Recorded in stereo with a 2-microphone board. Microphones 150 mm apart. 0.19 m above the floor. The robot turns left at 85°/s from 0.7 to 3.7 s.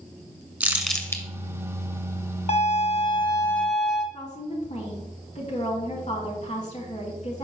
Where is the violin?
105° left, 1.0 m; by 4.0 s straight ahead, 1.0 m.